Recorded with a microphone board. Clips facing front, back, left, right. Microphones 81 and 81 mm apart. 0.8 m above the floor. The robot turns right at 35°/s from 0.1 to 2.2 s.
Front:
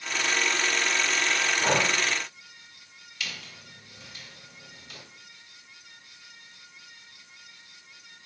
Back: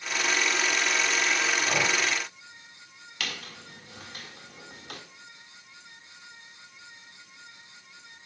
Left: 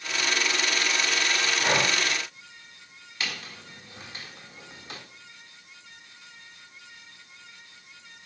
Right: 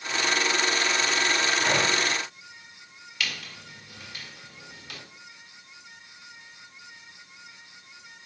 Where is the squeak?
150° left, 1.7 m.